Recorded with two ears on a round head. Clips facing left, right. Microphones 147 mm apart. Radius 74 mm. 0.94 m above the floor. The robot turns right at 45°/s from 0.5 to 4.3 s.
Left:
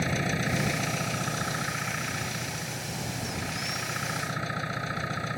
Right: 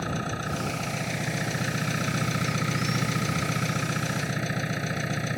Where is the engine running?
160° left; by 5.4 s 30° right.